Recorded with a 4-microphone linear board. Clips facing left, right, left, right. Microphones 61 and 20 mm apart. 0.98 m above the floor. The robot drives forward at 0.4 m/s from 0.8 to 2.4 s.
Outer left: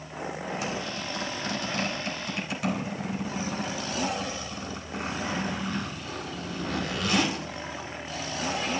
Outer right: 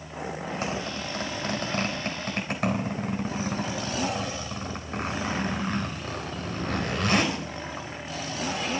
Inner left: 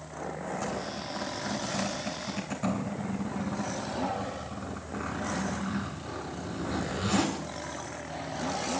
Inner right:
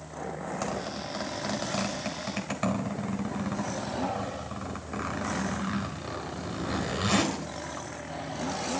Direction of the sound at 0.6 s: 45° right (ahead or behind).